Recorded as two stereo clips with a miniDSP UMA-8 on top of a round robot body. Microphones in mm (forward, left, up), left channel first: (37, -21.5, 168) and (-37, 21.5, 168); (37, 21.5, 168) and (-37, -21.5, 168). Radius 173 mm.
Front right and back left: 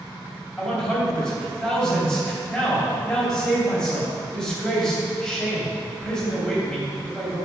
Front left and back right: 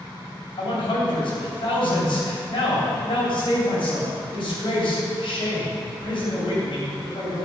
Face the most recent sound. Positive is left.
turn(degrees=50)